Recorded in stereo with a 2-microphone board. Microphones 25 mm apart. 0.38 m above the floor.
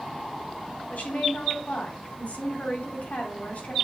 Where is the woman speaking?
65° left (ahead or behind), 2.5 m.